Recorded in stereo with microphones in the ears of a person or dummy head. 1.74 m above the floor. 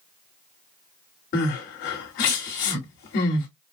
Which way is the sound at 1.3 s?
60° left (ahead or behind).